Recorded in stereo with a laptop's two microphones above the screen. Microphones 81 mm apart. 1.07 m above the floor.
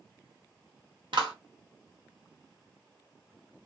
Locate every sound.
1.1 s a clap: 80° right, 0.9 m